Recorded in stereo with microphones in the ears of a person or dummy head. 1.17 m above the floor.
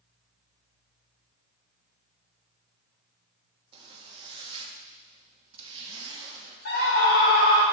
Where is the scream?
75° left (ahead or behind), 3 m.